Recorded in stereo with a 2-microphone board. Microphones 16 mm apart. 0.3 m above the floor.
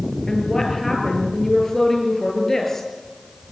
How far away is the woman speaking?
About 6.5 m.